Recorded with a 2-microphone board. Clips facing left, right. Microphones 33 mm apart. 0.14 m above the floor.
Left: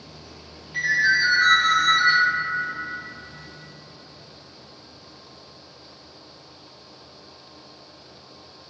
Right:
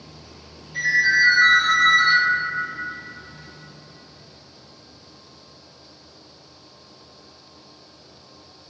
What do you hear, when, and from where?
0.7 s a ringtone: 30° left (ahead or behind), 1.9 m